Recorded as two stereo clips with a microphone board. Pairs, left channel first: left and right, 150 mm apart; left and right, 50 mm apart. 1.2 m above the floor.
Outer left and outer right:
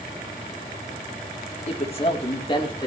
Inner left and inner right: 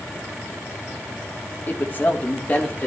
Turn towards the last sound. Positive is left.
turn(degrees=30)  # may be behind; listen again after turning